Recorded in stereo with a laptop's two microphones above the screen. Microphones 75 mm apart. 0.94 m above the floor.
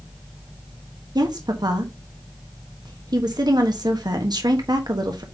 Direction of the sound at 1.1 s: 65° right (ahead or behind).